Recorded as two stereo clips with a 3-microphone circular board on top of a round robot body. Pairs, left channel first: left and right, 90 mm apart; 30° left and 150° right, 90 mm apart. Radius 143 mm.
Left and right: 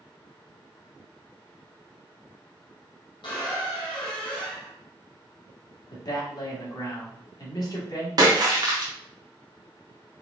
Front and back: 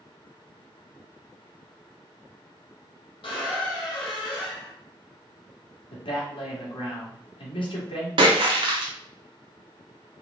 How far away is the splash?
About 0.5 m.